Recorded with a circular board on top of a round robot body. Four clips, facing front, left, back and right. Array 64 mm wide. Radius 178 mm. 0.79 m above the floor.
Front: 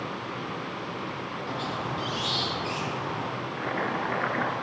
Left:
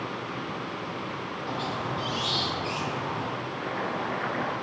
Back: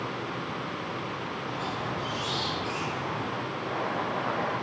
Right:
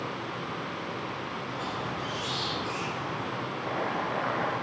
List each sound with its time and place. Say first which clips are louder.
1.5 s a squeak: left 5 dB, front 2 dB; 55° left, 7 m
3.6 s boiling: right 1 dB, front 3 dB; 10° left, 9.5 m